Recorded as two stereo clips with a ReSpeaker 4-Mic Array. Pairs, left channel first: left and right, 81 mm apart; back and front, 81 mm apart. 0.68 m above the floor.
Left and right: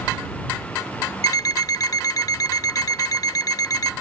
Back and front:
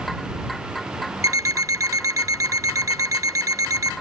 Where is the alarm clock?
50° left.